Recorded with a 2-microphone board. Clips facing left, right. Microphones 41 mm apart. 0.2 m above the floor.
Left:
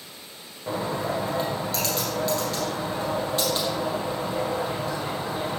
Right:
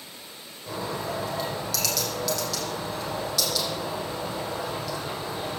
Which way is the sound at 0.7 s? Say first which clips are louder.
Left 4 dB; 30° left (ahead or behind).